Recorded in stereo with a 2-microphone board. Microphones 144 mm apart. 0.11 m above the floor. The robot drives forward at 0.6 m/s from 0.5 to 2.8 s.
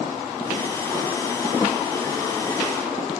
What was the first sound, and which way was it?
A snare drum, 20° left (ahead or behind).